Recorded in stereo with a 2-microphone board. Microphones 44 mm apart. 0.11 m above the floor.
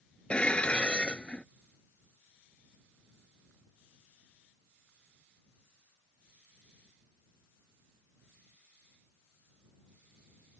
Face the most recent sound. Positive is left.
turn(degrees=25)  # may be behind; listen again after turning